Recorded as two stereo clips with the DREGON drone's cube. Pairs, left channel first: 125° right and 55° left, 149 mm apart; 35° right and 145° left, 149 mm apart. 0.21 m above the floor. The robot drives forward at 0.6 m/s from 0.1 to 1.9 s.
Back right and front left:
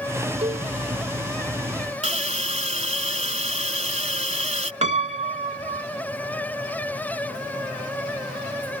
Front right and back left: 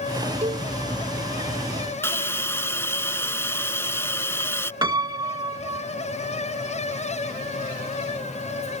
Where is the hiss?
35° left.